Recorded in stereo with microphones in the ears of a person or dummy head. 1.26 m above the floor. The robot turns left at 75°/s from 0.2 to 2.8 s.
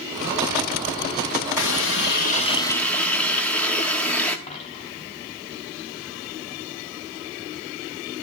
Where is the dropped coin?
35° left (ahead or behind), 2.5 m.